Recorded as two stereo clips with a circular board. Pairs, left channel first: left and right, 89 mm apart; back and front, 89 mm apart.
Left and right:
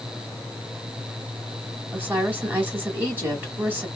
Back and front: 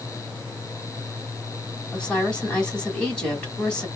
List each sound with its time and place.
1.9 s a woman speaking: 115° right, 1.6 m